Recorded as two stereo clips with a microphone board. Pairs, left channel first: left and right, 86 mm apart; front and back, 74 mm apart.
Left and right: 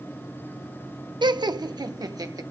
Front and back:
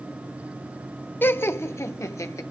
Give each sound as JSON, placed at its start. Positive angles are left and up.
{"t": 1.2, "sound": "laughter", "azimuth_deg": -60, "distance_m": 0.8}